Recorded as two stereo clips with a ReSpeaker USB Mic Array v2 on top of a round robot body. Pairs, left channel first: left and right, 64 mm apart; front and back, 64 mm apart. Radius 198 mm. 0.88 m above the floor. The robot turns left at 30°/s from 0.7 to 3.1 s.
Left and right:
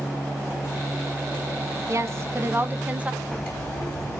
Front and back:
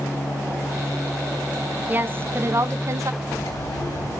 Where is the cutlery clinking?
15° left, 4 m.